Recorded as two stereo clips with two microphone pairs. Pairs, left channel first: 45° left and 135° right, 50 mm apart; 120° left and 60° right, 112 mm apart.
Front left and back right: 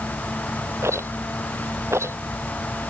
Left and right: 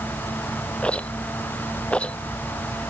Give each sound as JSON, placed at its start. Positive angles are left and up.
{"t": 0.8, "sound": "a rattle", "azimuth_deg": -155}